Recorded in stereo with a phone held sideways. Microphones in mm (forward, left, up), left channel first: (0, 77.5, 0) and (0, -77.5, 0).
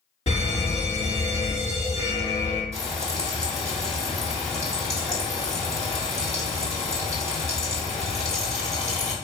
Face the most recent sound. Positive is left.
turn(degrees=45)  # may be behind; listen again after turning